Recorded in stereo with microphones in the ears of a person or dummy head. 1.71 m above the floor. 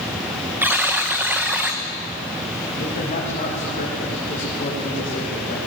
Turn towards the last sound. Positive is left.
turn(degrees=35)  # may be behind; listen again after turning